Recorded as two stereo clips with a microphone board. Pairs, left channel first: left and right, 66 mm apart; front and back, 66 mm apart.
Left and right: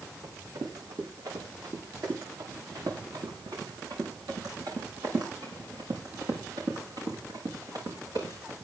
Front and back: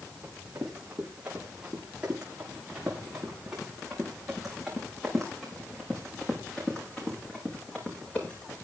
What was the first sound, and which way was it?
Running footsteps, 110° right.